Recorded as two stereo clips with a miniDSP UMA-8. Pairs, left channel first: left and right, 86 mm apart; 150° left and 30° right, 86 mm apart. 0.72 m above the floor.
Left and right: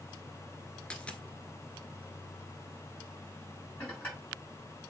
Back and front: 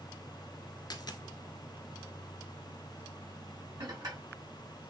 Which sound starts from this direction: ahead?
Dishes clattering, at 3.8 s.